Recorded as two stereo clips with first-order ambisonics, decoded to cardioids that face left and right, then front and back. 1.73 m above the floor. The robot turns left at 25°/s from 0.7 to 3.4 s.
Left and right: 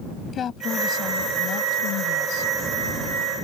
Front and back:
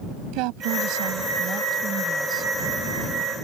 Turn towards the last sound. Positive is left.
turn(degrees=85)